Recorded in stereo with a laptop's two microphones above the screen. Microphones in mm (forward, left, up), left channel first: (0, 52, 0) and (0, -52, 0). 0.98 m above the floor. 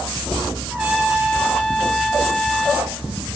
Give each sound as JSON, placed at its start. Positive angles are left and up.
{"t": 0.7, "sound": "a trumpet", "side_deg": -10, "distance_m": 1.5}